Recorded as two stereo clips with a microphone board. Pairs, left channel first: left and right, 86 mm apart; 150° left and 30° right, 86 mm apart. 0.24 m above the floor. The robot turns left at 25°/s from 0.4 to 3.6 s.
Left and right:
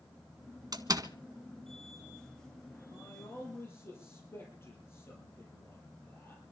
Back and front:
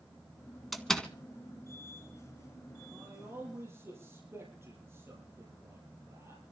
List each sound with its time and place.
0.7 s a door slam: 120° right, 1.7 m; by 1.1 s 130° right, 1.7 m
2.9 s a man speaking: 45° left, 6.5 m; by 6.4 s 30° left, 6.5 m